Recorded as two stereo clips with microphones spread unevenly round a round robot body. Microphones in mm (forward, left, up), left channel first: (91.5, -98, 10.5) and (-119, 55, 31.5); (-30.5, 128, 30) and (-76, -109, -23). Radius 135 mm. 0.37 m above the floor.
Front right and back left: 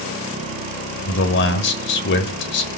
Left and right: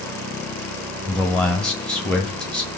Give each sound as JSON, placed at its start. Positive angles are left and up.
{"t": 1.1, "sound": "a man speaking", "azimuth_deg": -20, "distance_m": 1.4}